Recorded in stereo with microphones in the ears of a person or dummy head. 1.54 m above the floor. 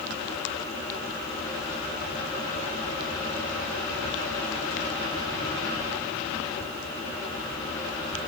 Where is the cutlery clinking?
No cutlery clinking in this recording.